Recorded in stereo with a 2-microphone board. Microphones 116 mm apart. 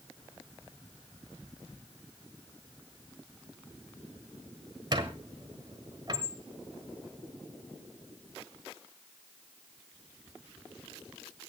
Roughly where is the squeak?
Right.